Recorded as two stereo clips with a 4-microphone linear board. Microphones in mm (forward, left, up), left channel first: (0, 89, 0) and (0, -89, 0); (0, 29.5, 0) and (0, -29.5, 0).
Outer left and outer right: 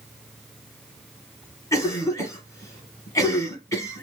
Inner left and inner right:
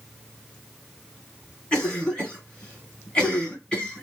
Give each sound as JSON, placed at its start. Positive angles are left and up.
{"t": 1.7, "sound": "a cough", "side_deg": 15, "distance_m": 1.4}